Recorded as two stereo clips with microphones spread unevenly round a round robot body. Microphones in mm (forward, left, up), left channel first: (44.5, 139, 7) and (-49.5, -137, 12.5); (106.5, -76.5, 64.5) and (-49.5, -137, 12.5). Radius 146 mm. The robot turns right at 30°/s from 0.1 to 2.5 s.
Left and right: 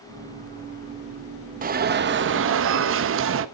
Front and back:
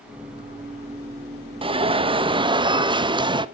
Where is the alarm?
160° right, 1.1 m; by 3.5 s 135° right, 1.1 m.